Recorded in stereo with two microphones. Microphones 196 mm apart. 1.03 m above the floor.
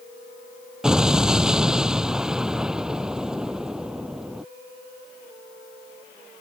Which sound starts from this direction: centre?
An explosion, at 0.8 s.